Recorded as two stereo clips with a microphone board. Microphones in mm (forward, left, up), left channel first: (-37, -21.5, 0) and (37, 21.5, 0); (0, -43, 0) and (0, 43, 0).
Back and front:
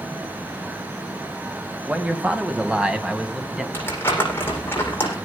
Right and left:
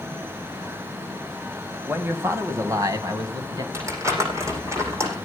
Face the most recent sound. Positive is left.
turn(degrees=145)